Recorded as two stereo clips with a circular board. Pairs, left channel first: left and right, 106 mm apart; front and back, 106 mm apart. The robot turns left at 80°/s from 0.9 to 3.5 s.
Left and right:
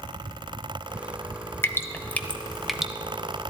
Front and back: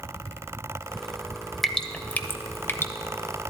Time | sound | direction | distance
1.6 | dripping | 85° left | 0.6 m